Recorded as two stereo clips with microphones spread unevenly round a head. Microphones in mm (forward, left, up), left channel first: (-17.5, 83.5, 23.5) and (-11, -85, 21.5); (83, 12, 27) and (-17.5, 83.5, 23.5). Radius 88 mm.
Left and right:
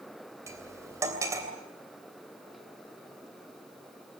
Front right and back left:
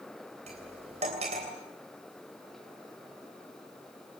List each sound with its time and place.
0.5 s cutlery clinking: 160° right, 3 m